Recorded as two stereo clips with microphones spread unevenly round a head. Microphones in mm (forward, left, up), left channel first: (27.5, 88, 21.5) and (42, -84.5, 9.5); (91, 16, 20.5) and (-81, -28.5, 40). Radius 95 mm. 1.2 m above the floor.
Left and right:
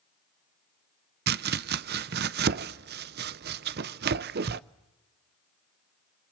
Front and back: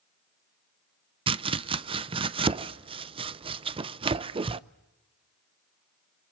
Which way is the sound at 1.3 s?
105° right.